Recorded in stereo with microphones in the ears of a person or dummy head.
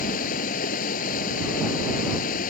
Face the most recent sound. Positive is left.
turn(degrees=50)  # may be behind; listen again after turning